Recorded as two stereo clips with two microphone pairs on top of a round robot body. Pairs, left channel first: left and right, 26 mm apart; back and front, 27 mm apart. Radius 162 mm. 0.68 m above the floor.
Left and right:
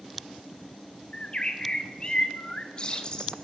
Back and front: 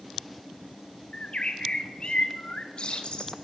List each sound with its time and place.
1.1 s a bird: 140° left, 1.8 m